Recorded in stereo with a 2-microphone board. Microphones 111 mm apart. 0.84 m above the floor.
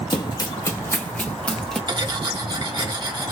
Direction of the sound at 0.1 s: 40° left (ahead or behind).